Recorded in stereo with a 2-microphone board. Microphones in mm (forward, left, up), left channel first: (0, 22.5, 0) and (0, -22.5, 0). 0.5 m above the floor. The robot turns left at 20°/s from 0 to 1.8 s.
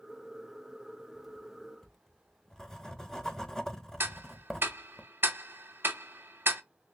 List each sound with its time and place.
1.1 s writing: centre (ahead or behind), 0.5 m; by 5.0 s 15° left (ahead or behind), 0.5 m
4.0 s ticking: 50° right (ahead or behind), 0.6 m